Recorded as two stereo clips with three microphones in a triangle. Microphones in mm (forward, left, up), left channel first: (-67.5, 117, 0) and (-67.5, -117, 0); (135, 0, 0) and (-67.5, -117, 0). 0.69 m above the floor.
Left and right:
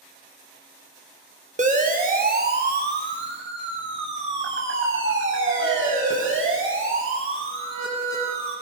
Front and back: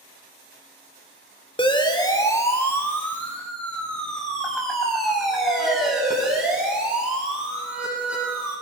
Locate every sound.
1.6 s a siren: 35° right, 3 m; by 8.5 s 65° right, 12 m